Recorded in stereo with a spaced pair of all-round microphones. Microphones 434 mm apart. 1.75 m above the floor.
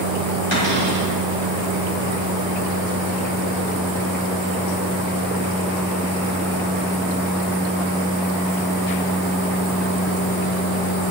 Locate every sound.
0.5 s a cupboard door: 85° left, 4 m